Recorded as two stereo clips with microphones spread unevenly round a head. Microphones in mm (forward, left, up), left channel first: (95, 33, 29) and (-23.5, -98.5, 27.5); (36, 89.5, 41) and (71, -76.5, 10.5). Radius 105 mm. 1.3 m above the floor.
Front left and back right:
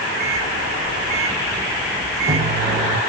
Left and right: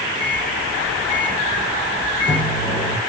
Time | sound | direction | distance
0.2 | a microwave | 165° left | 0.7 m